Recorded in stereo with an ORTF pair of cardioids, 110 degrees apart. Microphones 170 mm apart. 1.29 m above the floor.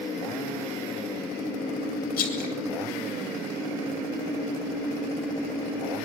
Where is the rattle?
70° left, 6.5 m.